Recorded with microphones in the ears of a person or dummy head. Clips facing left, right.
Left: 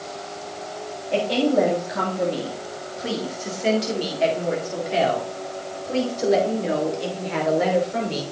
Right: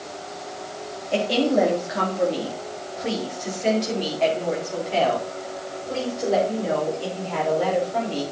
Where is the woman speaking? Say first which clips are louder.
Left 1 dB; 15° right (ahead or behind), 3 m; by 8.2 s 25° left (ahead or behind), 5.5 m.